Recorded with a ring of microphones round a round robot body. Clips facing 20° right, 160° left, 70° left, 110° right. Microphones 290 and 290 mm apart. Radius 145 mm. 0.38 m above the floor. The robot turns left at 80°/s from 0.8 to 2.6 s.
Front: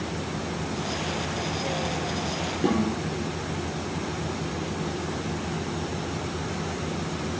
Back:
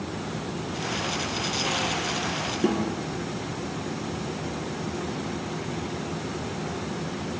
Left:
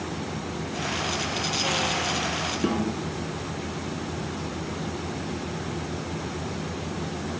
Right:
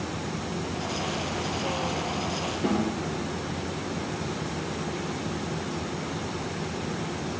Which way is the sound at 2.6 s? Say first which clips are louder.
Front 1 dB, left 1 dB; 90° left.